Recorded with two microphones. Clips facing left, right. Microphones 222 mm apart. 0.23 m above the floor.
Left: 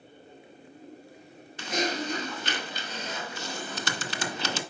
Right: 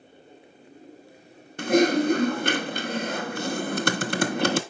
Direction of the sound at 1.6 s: 55° right (ahead or behind).